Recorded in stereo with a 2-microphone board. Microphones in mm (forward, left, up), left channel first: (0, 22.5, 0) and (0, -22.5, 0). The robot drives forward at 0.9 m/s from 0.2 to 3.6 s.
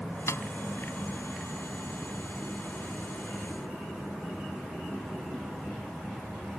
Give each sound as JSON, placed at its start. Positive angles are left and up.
{"t": 0.3, "sound": "a snare drum", "side_deg": 85}